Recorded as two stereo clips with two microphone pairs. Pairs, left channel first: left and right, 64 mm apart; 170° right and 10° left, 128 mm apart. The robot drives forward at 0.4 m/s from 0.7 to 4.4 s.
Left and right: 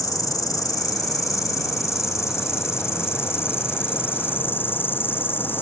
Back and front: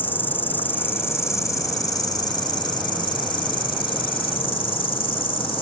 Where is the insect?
115° left; by 5.6 s 145° left.